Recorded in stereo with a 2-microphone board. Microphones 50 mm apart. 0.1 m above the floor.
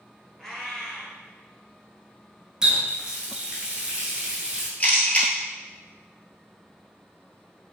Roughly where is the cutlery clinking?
I don't hear cutlery clinking.